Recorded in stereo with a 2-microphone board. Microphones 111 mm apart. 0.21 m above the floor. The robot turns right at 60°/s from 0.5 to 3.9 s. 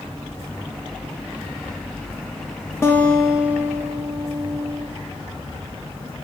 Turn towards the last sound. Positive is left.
turn(degrees=-140)